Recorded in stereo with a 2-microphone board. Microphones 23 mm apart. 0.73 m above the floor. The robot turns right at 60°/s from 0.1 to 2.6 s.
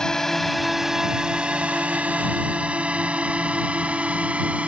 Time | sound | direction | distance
0.0 | a drone | 25° left (ahead or behind) | ?